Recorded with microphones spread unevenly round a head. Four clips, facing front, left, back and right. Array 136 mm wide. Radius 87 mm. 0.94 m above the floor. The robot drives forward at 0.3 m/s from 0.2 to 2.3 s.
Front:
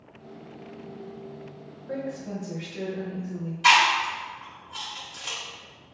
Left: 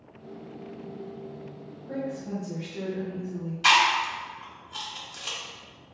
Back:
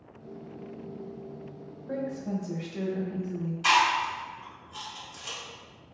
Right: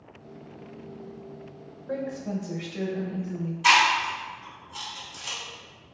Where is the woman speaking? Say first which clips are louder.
Right 2 dB, even; 165° right, 0.6 m; by 3.5 s 170° right, 0.7 m.